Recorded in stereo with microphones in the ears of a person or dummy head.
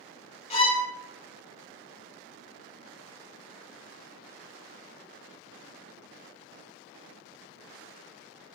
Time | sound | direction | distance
0.5 | a violin | 30° left (ahead or behind) | 0.6 m